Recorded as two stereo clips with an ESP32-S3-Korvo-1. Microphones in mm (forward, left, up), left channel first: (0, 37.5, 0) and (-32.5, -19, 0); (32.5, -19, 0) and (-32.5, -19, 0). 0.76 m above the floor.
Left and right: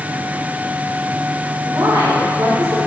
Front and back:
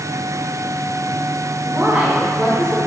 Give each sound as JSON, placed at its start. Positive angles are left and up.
{"t": 1.6, "sound": "a woman speaking", "azimuth_deg": -115, "distance_m": 2.0}